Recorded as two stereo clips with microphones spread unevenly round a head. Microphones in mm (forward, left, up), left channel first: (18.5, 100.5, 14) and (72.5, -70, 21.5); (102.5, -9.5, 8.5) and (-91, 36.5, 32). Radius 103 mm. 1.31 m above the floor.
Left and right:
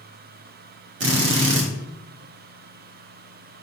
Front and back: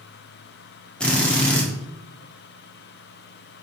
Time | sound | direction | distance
1.0 | a drill | 100° right | 1.6 m